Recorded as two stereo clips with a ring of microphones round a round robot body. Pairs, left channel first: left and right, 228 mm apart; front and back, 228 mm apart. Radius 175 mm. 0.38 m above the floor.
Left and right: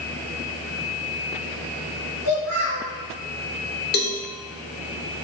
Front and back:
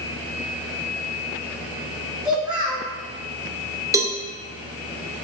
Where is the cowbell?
105° left, 0.6 m.